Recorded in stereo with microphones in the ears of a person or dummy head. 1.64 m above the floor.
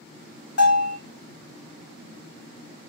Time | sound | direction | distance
0.6 | a bell | 70° left (ahead or behind) | 2 m